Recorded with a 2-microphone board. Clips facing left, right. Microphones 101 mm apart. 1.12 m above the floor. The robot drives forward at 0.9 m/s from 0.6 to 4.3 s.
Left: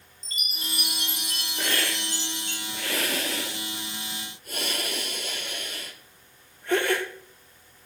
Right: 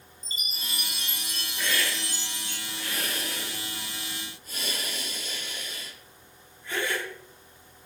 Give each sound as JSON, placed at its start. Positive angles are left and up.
{"t": 0.2, "sound": "a chime", "side_deg": 60, "distance_m": 2.0}
{"t": 1.6, "sound": "a hiss", "side_deg": 45, "distance_m": 2.0}